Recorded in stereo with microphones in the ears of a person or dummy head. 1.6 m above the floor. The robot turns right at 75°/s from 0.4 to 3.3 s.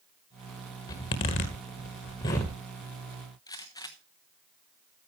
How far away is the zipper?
About 1.5 m.